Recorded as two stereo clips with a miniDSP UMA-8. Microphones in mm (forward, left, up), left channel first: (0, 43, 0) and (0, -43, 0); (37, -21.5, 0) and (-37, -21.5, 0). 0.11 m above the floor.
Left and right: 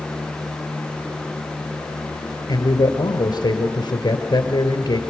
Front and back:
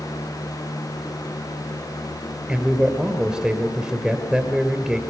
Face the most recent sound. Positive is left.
turn(degrees=105)